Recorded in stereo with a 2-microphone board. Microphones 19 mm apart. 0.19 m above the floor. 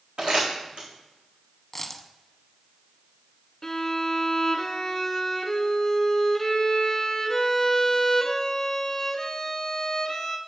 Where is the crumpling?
65° right (ahead or behind), 3.5 m.